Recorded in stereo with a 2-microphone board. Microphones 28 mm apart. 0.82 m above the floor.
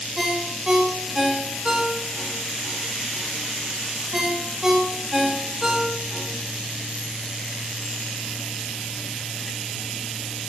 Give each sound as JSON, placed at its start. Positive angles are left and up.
{"t": 0.2, "sound": "a ringtone", "side_deg": -20, "distance_m": 0.9}